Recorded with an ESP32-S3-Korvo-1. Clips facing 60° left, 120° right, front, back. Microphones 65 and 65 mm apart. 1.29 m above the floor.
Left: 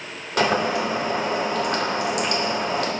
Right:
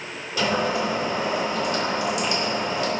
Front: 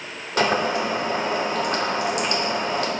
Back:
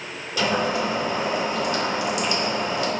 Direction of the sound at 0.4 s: 35° left.